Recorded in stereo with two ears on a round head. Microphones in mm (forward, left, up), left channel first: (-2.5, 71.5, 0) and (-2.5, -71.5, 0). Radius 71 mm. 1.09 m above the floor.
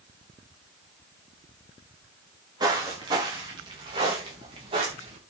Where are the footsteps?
25° right (ahead or behind), 7 m; by 5.2 s 35° right (ahead or behind), 6.5 m.